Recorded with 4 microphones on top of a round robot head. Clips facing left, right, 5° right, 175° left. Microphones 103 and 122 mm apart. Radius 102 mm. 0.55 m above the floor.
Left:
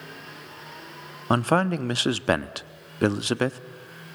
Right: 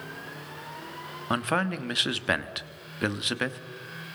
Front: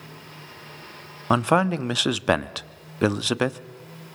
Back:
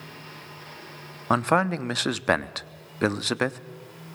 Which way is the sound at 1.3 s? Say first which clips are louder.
Left 6 dB, front 2 dB; 65° left.